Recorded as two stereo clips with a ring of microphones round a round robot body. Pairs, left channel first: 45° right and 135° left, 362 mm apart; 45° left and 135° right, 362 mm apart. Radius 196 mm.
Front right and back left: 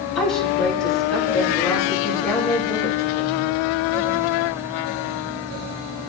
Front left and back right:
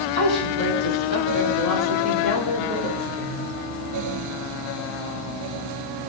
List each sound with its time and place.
0.1 s a woman speaking: 45° left, 4.5 m